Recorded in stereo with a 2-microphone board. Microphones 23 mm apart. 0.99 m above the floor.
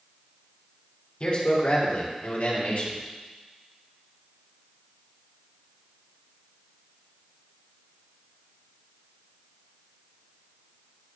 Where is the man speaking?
50° left (ahead or behind), 3.5 m; by 3.0 s 70° left (ahead or behind), 2.5 m.